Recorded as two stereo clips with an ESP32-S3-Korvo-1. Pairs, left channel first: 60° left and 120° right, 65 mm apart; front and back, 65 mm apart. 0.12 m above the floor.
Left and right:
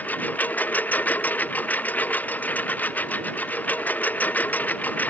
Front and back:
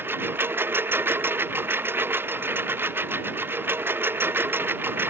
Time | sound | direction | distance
0.0 | a lawn mower | 125° left | ?